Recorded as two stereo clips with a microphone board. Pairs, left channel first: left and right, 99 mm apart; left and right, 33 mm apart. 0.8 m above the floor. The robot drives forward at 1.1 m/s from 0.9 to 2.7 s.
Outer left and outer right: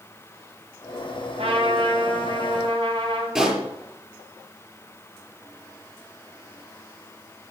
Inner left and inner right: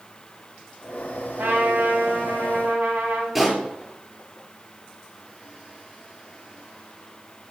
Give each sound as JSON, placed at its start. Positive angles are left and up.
{"t": 1.4, "sound": "a trumpet", "side_deg": -80, "distance_m": 5.0}
{"t": 3.4, "sound": "a pop", "side_deg": -5, "distance_m": 5.5}